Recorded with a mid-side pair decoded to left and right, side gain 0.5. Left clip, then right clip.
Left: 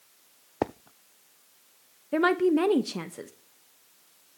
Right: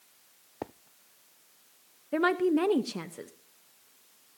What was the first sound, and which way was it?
A woman speaking, 10° left.